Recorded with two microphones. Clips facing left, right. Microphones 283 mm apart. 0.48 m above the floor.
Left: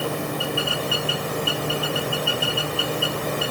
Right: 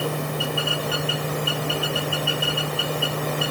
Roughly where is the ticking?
No ticking in this recording.